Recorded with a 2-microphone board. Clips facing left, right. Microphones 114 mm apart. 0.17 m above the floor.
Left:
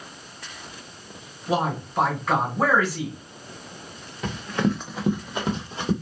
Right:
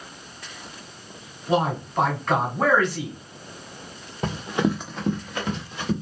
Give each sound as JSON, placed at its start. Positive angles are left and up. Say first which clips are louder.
{"t": 1.5, "sound": "a man speaking", "louder": "right 2 dB", "side_deg": 5, "distance_m": 1.3}
{"t": 4.2, "sound": "running footsteps", "louder": "right 1 dB", "side_deg": -40, "distance_m": 0.8}